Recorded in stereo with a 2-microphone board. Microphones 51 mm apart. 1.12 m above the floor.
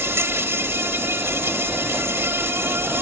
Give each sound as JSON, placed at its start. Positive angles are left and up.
{"t": 0.0, "sound": "an insect", "side_deg": -60}